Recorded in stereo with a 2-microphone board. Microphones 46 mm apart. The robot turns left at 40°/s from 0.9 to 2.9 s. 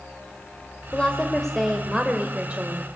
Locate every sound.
0.9 s a woman speaking: 30° left, 1.9 m; by 2.9 s 45° right, 1.9 m